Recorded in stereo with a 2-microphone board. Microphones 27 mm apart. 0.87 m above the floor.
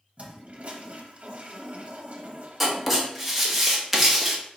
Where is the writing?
Centre (ahead or behind), 0.9 m.